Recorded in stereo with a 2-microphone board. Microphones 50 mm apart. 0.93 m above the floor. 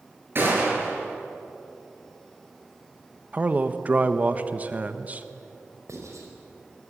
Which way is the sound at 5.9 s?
80° right.